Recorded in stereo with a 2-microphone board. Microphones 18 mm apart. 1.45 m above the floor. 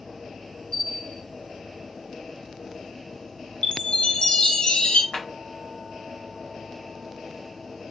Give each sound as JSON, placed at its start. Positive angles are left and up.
{"t": 0.7, "sound": "a bell", "side_deg": 65, "distance_m": 2.0}
{"t": 3.6, "sound": "a chime", "side_deg": 75, "distance_m": 0.5}
{"t": 5.1, "sound": "a clap", "side_deg": 85, "distance_m": 1.1}